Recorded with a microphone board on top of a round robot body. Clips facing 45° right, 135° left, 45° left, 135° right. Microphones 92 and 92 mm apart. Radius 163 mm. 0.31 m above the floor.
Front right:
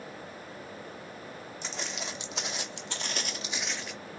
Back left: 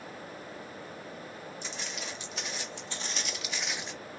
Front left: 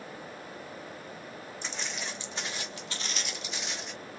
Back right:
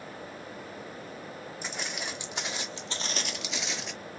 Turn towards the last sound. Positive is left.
turn(degrees=-165)